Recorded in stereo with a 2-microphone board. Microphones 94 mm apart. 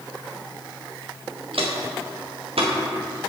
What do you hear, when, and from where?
1.5 s footsteps: 75° right (ahead or behind), 1.7 m; by 2.7 s 85° right, 2.5 m